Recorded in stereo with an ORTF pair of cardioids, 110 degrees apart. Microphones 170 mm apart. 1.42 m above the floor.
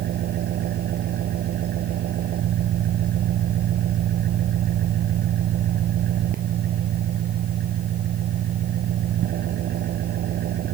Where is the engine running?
65° right.